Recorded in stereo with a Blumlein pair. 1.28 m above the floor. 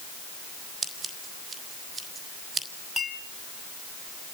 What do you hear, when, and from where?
0.8 s scissors: 15° right, 4.5 m
3.0 s a clink: straight ahead, 7 m